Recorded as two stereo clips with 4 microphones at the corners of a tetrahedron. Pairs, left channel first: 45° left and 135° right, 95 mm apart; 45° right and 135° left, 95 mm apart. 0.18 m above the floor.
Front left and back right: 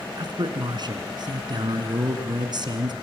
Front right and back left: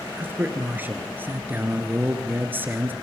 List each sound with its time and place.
0.2 s a man speaking: 160° right, 2.5 m